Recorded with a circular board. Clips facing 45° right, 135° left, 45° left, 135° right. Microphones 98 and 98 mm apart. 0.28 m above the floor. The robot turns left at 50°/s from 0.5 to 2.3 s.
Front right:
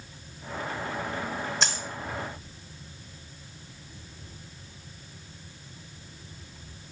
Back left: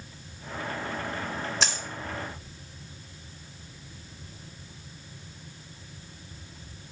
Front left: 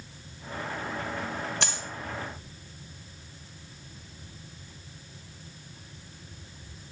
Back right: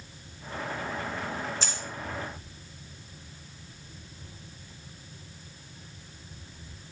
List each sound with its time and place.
1.6 s a dropped coin: 45° left, 1.6 m; by 1.8 s 35° left, 1.6 m